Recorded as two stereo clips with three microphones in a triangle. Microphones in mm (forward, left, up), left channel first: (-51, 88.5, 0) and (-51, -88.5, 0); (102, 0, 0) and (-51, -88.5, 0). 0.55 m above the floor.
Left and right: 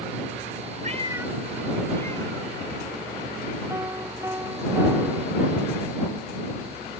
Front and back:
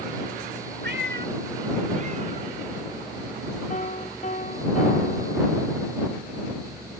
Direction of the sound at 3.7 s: 15° right.